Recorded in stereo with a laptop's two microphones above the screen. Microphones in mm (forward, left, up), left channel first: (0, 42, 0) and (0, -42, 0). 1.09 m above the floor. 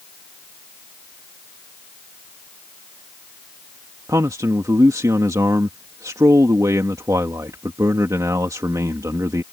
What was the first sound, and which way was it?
A man speaking, 40° right (ahead or behind).